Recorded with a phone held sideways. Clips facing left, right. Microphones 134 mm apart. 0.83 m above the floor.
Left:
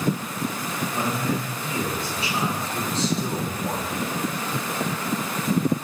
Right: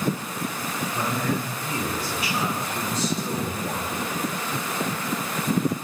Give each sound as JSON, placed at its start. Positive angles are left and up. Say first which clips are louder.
{"t": 0.9, "sound": "a man speaking", "louder": "even", "side_deg": 25, "distance_m": 8.0}